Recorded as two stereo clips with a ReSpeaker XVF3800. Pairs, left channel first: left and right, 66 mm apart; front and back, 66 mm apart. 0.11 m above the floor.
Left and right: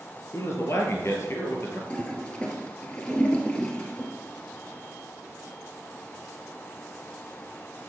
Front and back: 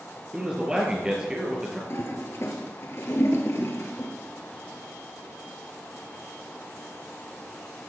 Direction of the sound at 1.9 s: 20° left.